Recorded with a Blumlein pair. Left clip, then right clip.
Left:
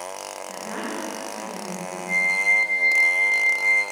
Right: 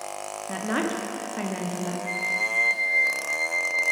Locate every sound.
0.5 s a woman speaking: 60° right, 0.9 m
2.1 s a flute: 40° right, 2.0 m